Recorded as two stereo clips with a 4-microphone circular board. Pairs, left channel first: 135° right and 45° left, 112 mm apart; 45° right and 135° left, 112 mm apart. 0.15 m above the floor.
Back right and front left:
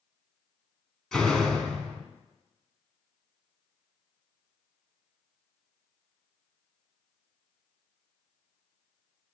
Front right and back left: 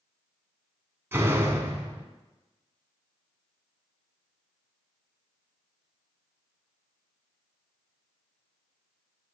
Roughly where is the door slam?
Behind left.